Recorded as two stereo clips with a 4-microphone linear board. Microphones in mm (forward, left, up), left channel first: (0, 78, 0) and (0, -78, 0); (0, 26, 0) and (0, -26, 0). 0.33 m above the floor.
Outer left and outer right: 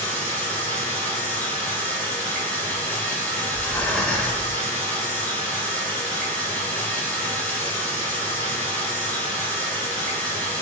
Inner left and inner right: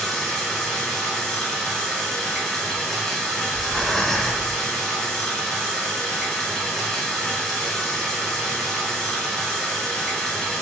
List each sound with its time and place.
0.0 s running water: 10° left (ahead or behind), 1.3 m
3.5 s breathing: 5° left (ahead or behind), 0.7 m